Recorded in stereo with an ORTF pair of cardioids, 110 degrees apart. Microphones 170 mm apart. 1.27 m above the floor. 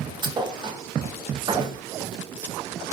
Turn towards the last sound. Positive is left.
turn(degrees=-30)